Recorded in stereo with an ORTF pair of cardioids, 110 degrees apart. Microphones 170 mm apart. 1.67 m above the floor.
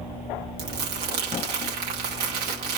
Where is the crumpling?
70° right, 2.5 m.